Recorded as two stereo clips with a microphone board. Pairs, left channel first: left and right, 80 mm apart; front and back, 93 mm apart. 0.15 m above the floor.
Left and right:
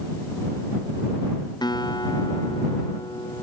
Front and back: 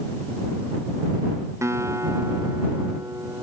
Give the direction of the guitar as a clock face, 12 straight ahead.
8 o'clock.